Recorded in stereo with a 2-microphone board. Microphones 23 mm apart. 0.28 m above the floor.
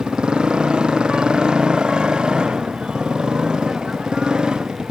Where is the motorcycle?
45° right (ahead or behind); by 4.9 s 40° right (ahead or behind).